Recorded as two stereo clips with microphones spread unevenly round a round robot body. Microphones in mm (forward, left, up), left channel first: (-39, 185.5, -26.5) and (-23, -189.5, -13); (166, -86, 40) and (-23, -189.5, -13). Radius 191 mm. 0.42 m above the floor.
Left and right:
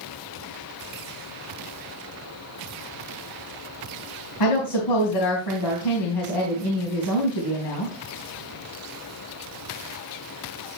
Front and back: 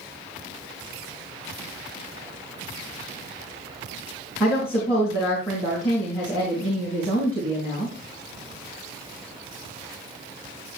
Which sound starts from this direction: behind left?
A woman speaking, at 4.4 s.